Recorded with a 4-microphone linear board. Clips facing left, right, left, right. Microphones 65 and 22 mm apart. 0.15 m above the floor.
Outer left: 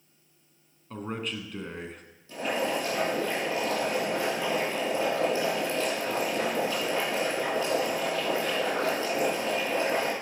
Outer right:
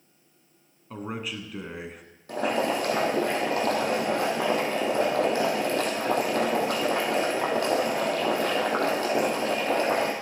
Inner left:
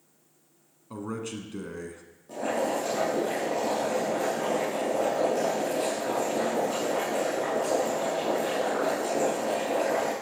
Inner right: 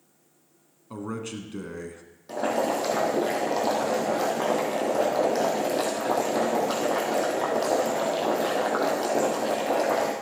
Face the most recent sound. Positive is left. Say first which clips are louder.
# outer right 3 dB, inner right 3 dB
turn(degrees=-60)  # may be behind; listen again after turning